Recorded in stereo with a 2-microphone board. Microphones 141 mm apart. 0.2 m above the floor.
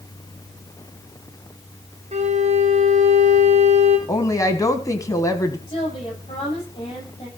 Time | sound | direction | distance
2.1 | a violin | 50° right (ahead or behind) | 2.5 m
4.1 | a woman speaking | 25° left (ahead or behind) | 1.1 m
5.7 | a woman speaking | 40° left (ahead or behind) | 10 m